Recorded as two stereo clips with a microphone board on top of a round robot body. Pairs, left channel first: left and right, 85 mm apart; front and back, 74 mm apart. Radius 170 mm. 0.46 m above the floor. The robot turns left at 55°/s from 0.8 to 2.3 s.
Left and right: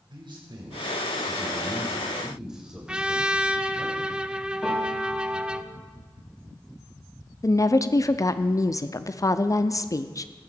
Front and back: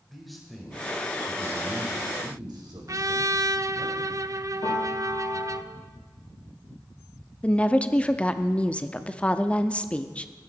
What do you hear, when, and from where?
0.1 s a man speaking: 90° right, 3.5 m; by 3.9 s 170° right, 3.5 m
2.9 s a trumpet: 165° right, 0.8 m
4.6 s a piano: 10° left, 5.5 m
7.4 s a woman speaking: 65° left, 0.9 m